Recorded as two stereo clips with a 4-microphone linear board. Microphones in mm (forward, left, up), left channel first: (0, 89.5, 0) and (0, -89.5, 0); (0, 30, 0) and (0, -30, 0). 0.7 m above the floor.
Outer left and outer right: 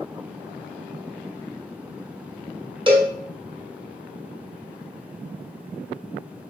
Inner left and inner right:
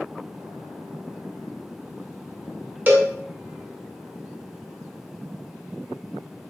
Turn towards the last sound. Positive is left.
turn(degrees=-30)  # may be behind; listen again after turning